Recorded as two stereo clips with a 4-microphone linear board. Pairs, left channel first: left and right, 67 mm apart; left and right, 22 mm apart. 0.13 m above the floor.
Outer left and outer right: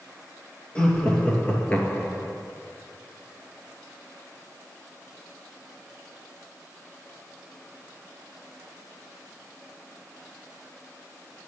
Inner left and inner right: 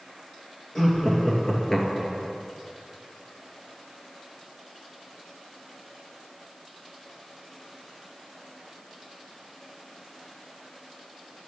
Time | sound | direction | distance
0.8 | laughter | 15° left (ahead or behind) | 3 m